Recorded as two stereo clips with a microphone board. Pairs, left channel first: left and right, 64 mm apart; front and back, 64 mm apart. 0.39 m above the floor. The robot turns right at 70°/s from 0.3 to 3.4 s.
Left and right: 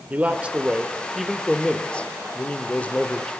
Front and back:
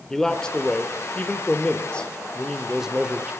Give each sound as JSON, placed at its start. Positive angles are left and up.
{"t": 0.1, "sound": "a man speaking", "azimuth_deg": -65, "distance_m": 0.9}